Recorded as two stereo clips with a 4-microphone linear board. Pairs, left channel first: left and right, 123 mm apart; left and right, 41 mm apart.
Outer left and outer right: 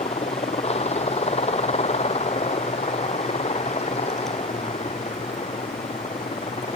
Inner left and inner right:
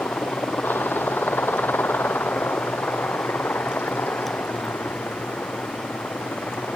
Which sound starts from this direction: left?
A helicopter, at 0.0 s.